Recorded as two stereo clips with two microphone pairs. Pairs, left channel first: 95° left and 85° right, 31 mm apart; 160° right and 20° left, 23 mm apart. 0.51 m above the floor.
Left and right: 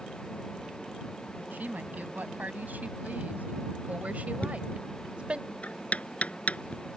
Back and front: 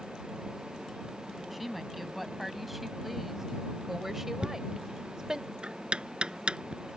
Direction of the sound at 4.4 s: 55° left.